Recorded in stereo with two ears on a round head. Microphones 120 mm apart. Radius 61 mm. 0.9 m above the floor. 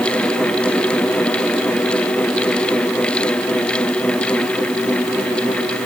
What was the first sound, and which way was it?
Only background noise.